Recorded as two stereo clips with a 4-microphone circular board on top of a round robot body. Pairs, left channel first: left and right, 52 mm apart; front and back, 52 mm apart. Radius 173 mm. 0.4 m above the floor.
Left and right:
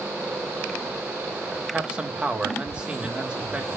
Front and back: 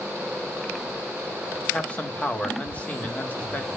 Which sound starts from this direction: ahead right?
A man speaking, at 1.7 s.